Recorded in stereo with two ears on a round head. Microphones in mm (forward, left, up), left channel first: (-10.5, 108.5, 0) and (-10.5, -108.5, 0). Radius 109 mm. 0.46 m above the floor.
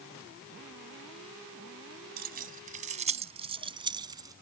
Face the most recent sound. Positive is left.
turn(degrees=-15)  # may be behind; listen again after turning